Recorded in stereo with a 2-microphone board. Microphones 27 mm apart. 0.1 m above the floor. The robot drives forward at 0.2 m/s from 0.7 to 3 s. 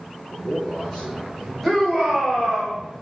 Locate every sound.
0.3 s a man speaking: 35° left (ahead or behind), 6.5 m
1.6 s a shout: 25° left (ahead or behind), 5 m; by 2.8 s 20° left (ahead or behind), 5 m